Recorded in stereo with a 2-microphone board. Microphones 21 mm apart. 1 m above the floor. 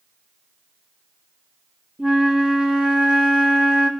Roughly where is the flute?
Right.